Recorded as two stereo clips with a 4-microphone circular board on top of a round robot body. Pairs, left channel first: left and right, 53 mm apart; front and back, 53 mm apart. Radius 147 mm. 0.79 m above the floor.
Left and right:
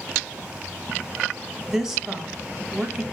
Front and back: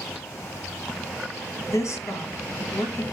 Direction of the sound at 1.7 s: 10° right.